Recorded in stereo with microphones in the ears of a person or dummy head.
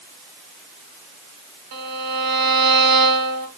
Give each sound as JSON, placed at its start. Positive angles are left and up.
{"t": 1.7, "sound": "a violin", "side_deg": -45, "distance_m": 1.3}